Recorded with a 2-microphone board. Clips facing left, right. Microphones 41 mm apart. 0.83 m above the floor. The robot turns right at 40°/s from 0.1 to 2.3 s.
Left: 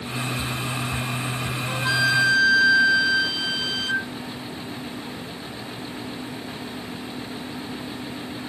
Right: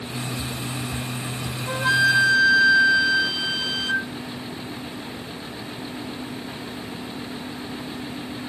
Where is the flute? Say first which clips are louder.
Right 3 dB; 30° right (ahead or behind); by 4.1 s 5° right (ahead or behind).